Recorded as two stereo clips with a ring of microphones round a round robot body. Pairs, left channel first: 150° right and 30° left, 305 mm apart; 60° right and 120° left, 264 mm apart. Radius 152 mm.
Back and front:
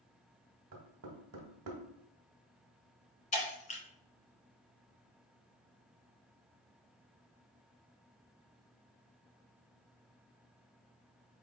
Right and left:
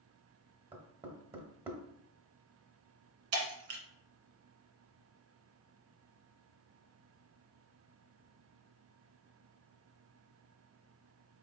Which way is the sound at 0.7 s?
55° left.